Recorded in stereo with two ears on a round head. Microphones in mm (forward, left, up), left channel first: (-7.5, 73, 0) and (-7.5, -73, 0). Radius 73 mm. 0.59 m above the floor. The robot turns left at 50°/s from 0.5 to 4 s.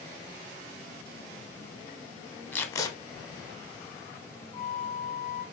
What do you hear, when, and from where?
2.5 s tape being pulled: 10° left (ahead or behind), 0.5 m; by 2.9 s 25° left (ahead or behind), 0.5 m
4.5 s a flute: 5° right (ahead or behind), 1.1 m